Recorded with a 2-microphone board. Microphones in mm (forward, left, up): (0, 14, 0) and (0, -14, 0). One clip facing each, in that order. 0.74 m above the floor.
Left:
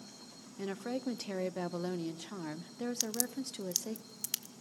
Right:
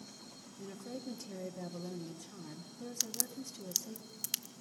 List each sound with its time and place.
0.6 s a woman speaking: 60° left (ahead or behind), 0.8 m
3.0 s a crack: 5° right (ahead or behind), 0.6 m